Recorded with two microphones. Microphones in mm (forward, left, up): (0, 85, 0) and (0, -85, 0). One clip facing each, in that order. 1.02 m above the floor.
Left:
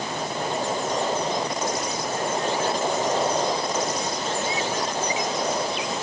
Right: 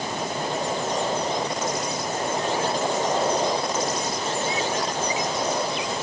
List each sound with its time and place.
Only background noise.